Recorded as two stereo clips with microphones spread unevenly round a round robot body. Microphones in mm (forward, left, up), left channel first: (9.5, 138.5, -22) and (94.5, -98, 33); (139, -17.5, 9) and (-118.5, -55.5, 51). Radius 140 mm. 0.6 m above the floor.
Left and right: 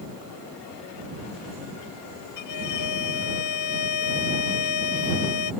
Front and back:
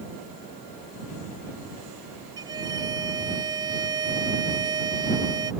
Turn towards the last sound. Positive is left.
turn(degrees=110)